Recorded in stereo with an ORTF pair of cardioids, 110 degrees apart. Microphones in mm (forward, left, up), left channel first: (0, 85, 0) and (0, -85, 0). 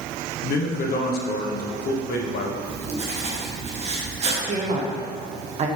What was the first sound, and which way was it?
A man speaking, 65° left.